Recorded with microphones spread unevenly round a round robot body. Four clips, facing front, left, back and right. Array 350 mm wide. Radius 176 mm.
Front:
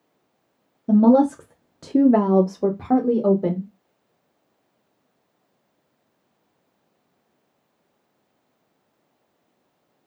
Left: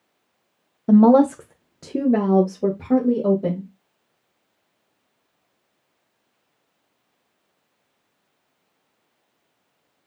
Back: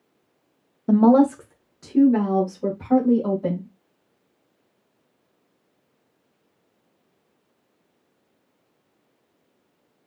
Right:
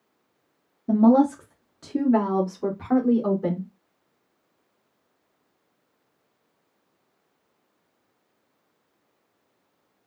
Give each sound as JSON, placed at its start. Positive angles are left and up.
{"t": 0.9, "sound": "a woman speaking", "azimuth_deg": 120, "distance_m": 0.7}